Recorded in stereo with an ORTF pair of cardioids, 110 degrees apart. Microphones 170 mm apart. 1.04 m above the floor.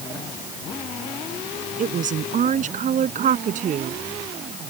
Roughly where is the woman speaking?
Ahead right.